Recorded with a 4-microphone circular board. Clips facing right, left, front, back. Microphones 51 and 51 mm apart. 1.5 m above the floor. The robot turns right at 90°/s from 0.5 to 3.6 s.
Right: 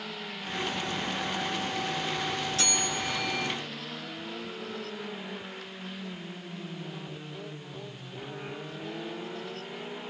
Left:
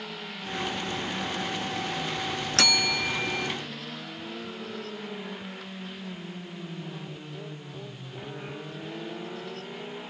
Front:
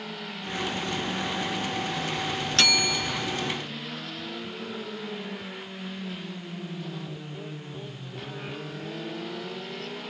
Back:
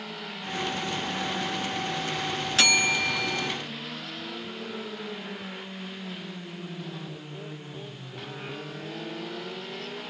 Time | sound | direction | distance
2.6 | a bell | 95° left | 0.5 m